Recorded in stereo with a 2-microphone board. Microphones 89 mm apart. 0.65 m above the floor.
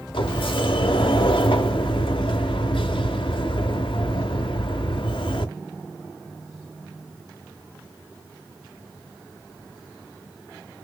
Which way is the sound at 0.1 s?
75° left (ahead or behind).